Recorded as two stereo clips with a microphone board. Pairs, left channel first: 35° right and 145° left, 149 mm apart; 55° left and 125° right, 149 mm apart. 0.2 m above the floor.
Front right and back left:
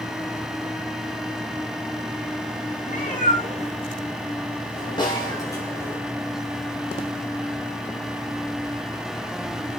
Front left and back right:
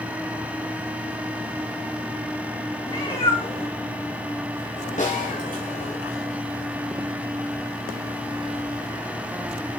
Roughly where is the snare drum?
Ahead left.